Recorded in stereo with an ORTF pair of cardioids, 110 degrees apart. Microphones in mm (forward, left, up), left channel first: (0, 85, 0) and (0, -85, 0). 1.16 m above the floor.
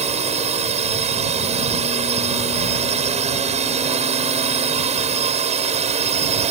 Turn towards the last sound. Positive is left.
turn(degrees=-40)